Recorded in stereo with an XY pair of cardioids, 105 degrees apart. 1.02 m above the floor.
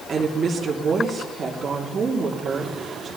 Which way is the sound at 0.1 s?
40° right.